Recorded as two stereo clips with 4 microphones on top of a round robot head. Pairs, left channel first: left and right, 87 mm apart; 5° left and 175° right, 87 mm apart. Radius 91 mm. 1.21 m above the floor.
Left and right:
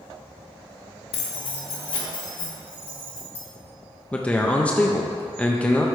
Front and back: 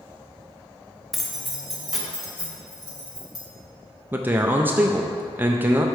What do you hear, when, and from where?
1.1 s keys jangling: 95° left, 0.9 m; by 3.4 s 100° left, 3 m
4.1 s a man speaking: 145° left, 0.6 m